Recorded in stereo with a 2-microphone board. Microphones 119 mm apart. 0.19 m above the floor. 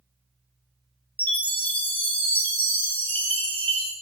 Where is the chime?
15° left (ahead or behind), 0.7 m.